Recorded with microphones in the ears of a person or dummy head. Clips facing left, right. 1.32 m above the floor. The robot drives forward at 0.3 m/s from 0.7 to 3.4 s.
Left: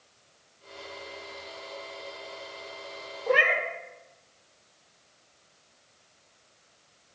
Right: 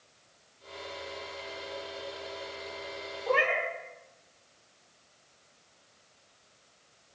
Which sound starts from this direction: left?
A cat meowing, at 3.3 s.